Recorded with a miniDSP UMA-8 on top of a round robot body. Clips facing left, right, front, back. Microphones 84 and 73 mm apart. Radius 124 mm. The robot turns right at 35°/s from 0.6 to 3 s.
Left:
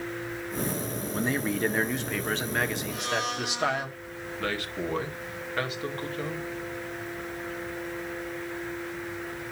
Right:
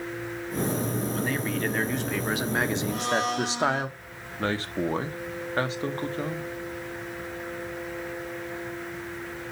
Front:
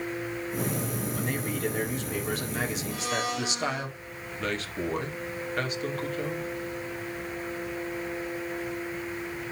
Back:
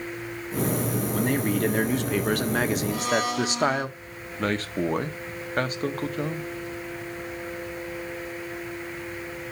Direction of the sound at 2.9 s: 145° right.